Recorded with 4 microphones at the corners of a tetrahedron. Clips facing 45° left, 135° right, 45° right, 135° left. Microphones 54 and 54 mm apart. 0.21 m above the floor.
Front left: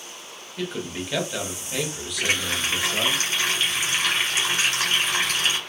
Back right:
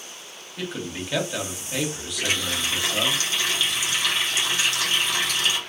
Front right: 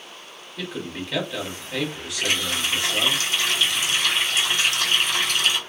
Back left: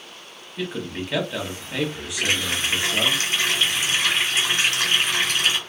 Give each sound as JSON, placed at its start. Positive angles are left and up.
{"t": 0.6, "sound": "a man speaking", "azimuth_deg": 135, "distance_m": 1.0}
{"t": 2.2, "sound": "a running tap", "azimuth_deg": 90, "distance_m": 1.9}